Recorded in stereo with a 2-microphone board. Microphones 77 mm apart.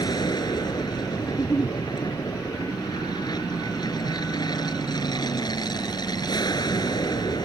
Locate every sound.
0.0 s an aircraft: 60° left (ahead or behind)
1.3 s a giggle: 35° left (ahead or behind)